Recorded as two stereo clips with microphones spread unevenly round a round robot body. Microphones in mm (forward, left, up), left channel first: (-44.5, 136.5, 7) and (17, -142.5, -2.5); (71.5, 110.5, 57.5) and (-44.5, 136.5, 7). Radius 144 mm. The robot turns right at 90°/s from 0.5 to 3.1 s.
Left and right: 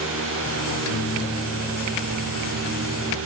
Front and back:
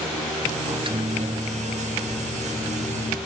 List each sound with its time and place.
0.7 s a microwave: 115° left, 1.3 m; by 3.2 s 30° right, 1.3 m